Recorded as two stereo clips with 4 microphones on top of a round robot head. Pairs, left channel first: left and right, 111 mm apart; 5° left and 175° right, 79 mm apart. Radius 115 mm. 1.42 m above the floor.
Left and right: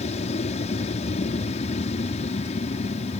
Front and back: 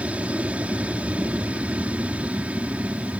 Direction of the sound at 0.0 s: 110° left.